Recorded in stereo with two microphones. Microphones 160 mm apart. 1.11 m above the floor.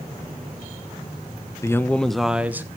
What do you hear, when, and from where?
1.6 s a man speaking: 20° left (ahead or behind), 0.9 m; by 2.7 s 15° right (ahead or behind), 1.2 m